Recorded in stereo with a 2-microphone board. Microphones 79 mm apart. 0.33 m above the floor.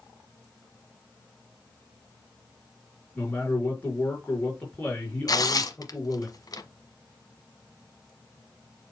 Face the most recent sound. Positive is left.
turn(degrees=50)  # may be behind; listen again after turning